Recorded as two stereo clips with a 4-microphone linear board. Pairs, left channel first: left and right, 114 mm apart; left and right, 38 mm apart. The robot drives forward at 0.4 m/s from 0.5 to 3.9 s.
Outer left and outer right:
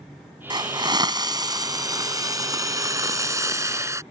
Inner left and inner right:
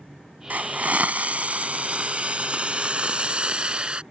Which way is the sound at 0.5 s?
40° right (ahead or behind).